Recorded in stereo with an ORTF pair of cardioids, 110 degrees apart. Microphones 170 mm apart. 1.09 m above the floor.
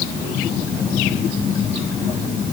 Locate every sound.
Only background noise.